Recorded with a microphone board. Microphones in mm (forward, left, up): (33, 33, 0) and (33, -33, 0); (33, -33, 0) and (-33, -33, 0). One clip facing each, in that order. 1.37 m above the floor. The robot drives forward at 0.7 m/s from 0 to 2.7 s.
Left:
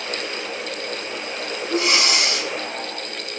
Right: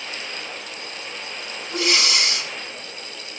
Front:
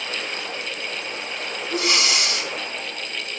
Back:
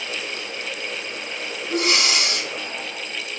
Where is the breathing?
150° left, 1.4 m; by 2.5 s 160° left, 1.9 m.